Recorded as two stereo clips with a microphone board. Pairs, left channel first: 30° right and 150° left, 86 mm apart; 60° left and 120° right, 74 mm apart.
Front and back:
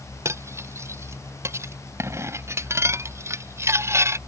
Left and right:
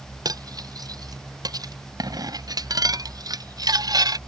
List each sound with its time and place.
0.2 s cutlery clinking: 150° right